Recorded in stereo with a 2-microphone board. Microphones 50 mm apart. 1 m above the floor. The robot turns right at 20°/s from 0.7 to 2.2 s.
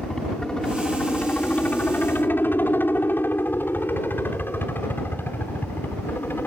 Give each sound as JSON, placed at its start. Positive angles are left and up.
{"t": 0.0, "sound": "a helicopter", "side_deg": 15}